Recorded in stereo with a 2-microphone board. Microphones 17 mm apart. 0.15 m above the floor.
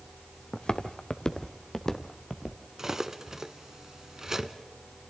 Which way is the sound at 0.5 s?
70° left (ahead or behind).